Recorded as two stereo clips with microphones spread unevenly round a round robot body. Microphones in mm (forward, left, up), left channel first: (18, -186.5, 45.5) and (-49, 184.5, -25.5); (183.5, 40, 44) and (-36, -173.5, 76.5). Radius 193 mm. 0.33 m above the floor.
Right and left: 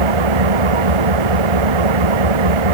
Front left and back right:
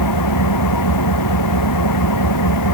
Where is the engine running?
85° left.